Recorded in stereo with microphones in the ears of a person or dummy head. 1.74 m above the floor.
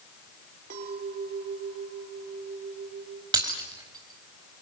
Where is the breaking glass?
25° right (ahead or behind), 3.5 m.